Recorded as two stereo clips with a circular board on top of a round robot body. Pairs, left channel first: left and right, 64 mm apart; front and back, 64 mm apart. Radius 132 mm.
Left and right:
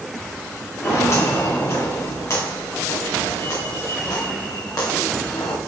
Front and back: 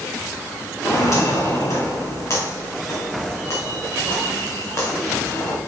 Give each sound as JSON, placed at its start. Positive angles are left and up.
{"t": 0.8, "sound": "footsteps", "azimuth_deg": 45, "distance_m": 5.0}